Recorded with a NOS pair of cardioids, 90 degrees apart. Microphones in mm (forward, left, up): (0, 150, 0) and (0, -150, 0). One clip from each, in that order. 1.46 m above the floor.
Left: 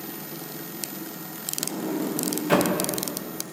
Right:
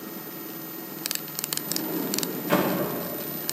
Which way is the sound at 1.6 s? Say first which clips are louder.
Left 3 dB; 20° left.